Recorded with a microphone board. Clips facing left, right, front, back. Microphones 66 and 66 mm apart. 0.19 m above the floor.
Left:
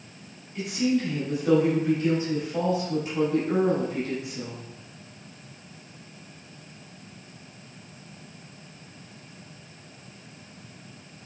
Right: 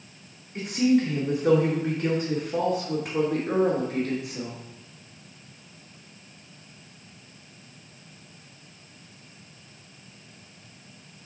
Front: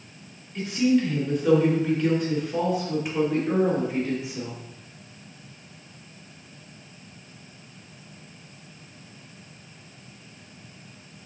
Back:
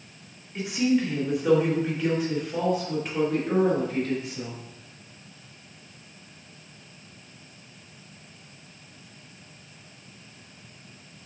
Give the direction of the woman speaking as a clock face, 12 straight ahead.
4 o'clock.